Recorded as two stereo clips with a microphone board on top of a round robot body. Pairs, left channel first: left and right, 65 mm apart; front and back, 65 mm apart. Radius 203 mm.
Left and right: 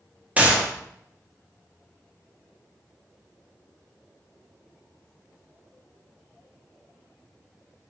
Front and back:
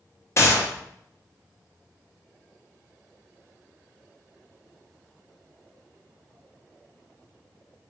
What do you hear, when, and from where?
0.4 s a gunshot: 30° right, 1.2 m